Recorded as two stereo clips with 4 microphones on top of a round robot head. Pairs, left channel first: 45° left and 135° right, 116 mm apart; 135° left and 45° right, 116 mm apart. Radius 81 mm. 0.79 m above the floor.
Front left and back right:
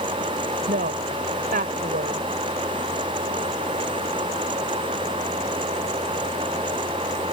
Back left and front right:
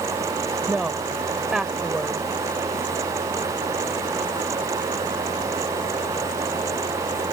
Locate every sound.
0.7 s a woman speaking: 130° right